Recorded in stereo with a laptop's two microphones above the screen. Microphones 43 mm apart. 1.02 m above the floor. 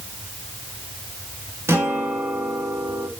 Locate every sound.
1.7 s a guitar: 70° right (ahead or behind), 1.1 m